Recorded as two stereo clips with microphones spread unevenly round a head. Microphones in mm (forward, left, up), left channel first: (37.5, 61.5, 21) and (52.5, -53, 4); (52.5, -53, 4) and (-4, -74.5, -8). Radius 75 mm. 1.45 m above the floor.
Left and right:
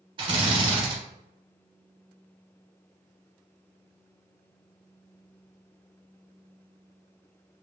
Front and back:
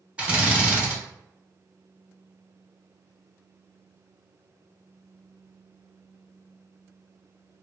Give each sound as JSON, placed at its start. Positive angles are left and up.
{"t": 0.2, "sound": "a drill", "azimuth_deg": -90, "distance_m": 1.0}